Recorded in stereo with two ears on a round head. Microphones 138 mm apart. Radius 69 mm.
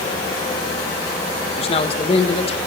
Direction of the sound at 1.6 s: 35° left (ahead or behind).